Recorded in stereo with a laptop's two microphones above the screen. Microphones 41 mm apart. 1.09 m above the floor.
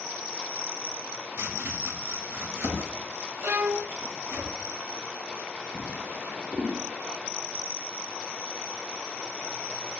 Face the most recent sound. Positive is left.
turn(degrees=-40)  # may be behind; listen again after turning